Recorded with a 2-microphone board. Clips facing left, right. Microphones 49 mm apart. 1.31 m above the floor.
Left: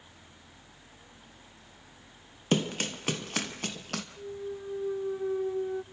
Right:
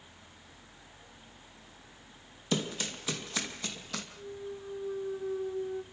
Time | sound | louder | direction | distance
2.5 | running footsteps | left 4 dB | 55° left (ahead or behind) | 2 m
4.2 | a clunk | left 3 dB | 45° left (ahead or behind) | 1.4 m